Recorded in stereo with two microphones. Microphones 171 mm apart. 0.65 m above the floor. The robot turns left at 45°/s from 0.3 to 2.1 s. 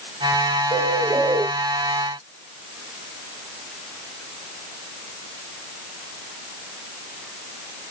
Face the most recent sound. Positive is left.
turn(degrees=-150)